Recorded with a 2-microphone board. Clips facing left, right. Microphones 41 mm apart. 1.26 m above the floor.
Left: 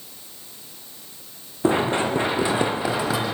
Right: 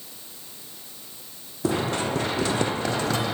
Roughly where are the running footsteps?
Left.